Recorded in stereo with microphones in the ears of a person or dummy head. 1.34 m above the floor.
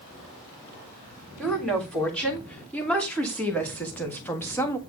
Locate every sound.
1.4 s a woman speaking: 5° left (ahead or behind), 3.5 m; by 4.8 s 15° left (ahead or behind), 1.7 m